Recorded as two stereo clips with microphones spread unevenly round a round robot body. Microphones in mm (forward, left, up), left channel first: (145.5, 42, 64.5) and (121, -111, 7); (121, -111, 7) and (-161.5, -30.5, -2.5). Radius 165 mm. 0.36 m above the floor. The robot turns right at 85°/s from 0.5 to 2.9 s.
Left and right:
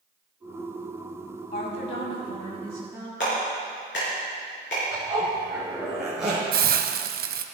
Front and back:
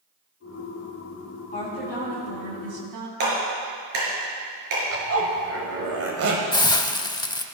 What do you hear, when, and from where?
1.5 s a woman speaking: 50° left, 2.5 m; by 3.1 s 170° left, 2.5 m
3.2 s a clap: 130° left, 5 m
4.9 s a zipper: 170° right, 2 m
6.5 s a hiss: 95° right, 0.8 m